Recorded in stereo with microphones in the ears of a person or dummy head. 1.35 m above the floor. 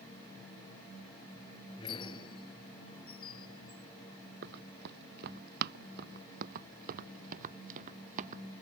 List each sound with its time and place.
1.8 s a squeak: 20° left (ahead or behind)
4.4 s running footsteps: 60° right (ahead or behind); by 8.4 s 40° right (ahead or behind)